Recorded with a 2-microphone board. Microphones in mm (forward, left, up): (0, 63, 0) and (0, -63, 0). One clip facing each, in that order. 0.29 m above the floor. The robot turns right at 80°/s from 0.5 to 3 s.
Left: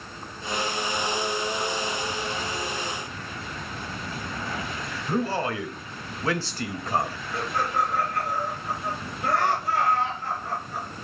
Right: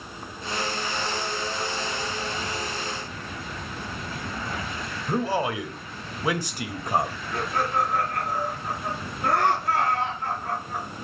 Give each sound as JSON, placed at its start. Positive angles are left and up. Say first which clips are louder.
{"t": 5.1, "sound": "a man speaking", "louder": "right 1 dB", "side_deg": -15, "distance_m": 0.9}
{"t": 7.3, "sound": "laughter", "louder": "right 1 dB", "side_deg": -65, "distance_m": 3.0}